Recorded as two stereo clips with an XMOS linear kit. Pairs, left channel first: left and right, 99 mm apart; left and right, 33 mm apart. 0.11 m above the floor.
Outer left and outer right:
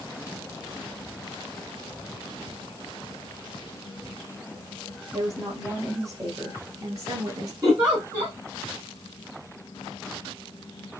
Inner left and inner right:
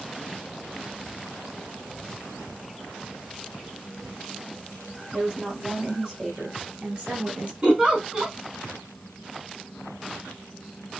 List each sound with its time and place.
5.1 s a woman speaking: 30° right (ahead or behind), 3 m; by 7.5 s 35° right (ahead or behind), 2.0 m
7.6 s a giggle: 35° right (ahead or behind), 4 m